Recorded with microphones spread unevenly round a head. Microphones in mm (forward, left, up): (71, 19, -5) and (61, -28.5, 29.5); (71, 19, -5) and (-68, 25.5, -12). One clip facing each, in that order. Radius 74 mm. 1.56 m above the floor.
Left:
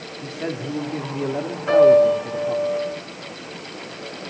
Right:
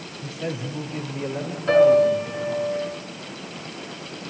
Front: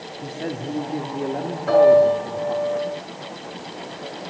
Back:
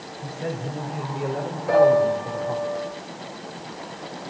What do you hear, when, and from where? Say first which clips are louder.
0.2 s a man speaking: left 2 dB, front 1 dB; 30° left, 3.5 m; by 2.7 s 70° left, 4 m
1.7 s a piano: left 2 dB, front 4 dB; 5° left, 8 m